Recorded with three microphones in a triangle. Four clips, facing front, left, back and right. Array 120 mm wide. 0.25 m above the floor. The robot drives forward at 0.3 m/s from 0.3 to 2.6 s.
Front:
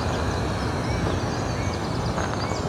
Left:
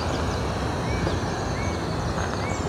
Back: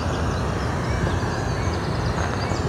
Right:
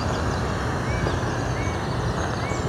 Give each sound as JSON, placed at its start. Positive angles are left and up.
{"t": 0.0, "sound": "running water", "azimuth_deg": -115, "distance_m": 1.3}